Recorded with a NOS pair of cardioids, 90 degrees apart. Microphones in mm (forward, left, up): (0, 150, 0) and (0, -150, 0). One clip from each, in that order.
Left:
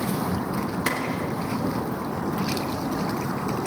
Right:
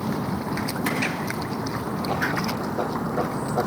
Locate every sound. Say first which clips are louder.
0.9 s a clap: left 2 dB; 40° left, 3 m